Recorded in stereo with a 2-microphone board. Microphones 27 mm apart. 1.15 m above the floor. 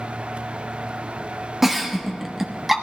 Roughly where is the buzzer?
No buzzer in this recording.